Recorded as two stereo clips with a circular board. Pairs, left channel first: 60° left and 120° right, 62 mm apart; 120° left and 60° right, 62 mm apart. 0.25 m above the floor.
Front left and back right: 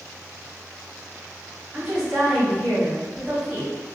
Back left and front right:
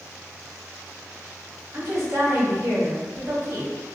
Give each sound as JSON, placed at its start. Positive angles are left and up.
{"t": 1.7, "sound": "a woman speaking", "azimuth_deg": -50, "distance_m": 1.8}